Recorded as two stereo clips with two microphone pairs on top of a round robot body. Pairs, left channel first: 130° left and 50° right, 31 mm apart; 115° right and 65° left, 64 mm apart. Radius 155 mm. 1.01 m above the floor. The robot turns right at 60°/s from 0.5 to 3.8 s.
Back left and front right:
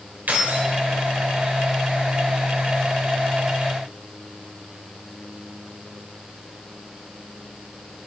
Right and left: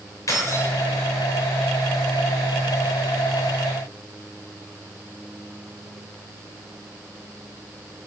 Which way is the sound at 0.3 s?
75° right.